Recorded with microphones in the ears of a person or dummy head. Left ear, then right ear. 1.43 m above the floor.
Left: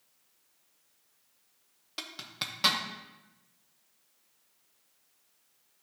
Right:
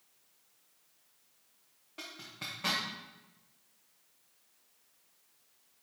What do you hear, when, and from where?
2.0 s a zipper: 60° left (ahead or behind), 0.8 m